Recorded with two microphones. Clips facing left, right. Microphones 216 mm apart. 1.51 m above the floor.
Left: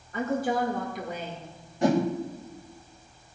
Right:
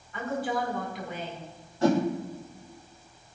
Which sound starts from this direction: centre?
A whoosh, at 1.8 s.